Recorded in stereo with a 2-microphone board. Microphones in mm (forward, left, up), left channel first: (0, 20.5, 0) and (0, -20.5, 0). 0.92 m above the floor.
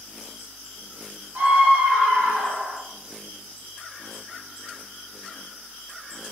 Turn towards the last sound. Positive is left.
turn(degrees=-50)  # may be behind; listen again after turning